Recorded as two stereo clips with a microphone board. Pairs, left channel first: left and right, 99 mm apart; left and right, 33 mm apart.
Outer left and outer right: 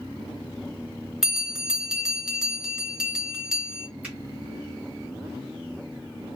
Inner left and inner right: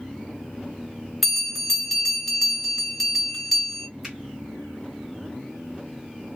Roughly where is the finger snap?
Centre.